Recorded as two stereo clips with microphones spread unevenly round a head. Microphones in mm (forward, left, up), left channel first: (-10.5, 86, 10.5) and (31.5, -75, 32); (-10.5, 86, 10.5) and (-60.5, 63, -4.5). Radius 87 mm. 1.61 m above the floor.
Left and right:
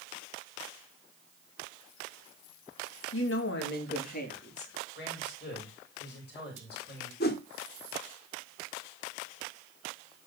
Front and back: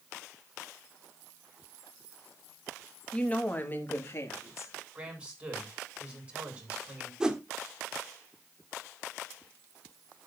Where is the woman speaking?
95° left, 2 m; by 4.7 s 55° left, 3.5 m.